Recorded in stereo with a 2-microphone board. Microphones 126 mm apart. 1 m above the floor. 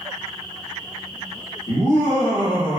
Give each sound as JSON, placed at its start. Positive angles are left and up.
{"t": 1.7, "sound": "laughter", "side_deg": 70, "distance_m": 1.5}